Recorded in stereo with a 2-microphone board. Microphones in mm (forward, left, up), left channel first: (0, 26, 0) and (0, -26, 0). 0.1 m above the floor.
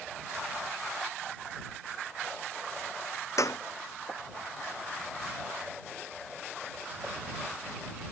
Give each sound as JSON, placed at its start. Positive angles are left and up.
{"t": 3.4, "sound": "a clap", "side_deg": 75}